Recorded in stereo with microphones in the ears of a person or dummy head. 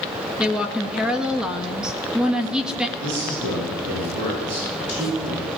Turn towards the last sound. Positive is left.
turn(degrees=-80)